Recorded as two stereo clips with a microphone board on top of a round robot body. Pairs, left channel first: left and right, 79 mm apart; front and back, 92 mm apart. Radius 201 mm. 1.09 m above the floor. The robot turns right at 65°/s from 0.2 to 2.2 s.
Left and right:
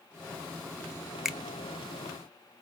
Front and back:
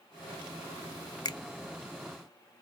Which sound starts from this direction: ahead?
A finger snap, at 1.2 s.